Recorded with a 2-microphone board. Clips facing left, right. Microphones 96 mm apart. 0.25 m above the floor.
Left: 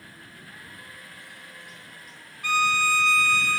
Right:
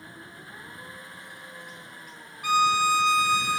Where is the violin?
20° right (ahead or behind).